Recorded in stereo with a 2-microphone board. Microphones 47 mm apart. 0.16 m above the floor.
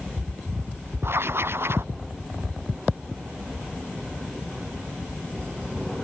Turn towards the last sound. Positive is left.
turn(degrees=-60)  # may be behind; listen again after turning